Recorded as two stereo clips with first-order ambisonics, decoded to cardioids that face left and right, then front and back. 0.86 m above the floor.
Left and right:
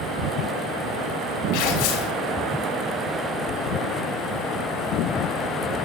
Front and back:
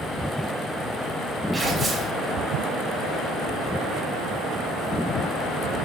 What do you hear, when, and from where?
1.5 s tearing paper: 95° left, 5.5 m